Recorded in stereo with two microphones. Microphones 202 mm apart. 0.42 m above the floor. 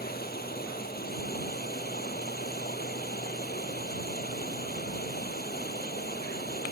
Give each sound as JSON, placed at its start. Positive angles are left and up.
{"t": 0.0, "sound": "running water", "side_deg": 55}